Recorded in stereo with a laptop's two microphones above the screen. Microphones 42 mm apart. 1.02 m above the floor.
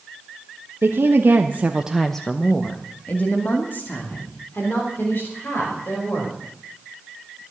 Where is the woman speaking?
70° right (ahead or behind), 1.5 m; by 6.4 s 60° left (ahead or behind), 5.5 m.